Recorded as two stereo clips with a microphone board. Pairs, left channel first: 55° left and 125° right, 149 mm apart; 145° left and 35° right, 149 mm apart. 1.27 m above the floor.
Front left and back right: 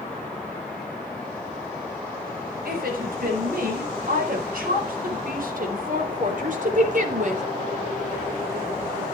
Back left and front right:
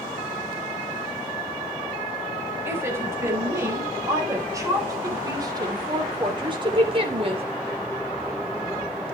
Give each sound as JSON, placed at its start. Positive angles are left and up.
{"t": 2.6, "sound": "a woman speaking", "azimuth_deg": -110, "distance_m": 6.0}